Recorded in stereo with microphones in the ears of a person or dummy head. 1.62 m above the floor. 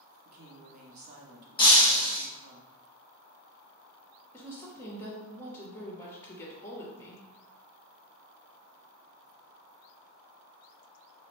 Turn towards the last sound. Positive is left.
turn(degrees=15)  # may be behind; listen again after turning